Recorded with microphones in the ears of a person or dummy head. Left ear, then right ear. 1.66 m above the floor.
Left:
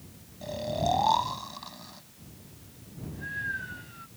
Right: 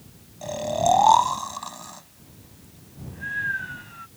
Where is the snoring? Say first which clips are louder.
Right 7 dB; 35° right (ahead or behind).